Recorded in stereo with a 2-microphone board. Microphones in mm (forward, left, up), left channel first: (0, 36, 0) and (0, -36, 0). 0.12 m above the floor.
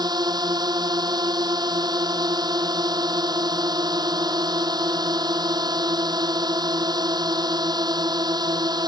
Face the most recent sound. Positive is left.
turn(degrees=-70)  # may be behind; listen again after turning